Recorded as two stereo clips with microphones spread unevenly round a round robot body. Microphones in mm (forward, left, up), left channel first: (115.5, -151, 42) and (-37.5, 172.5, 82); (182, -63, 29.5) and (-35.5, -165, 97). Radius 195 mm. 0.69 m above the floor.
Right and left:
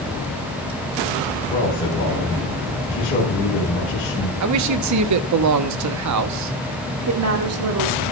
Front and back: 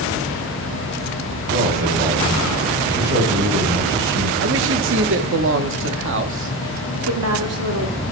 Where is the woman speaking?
165° left, 2.0 m.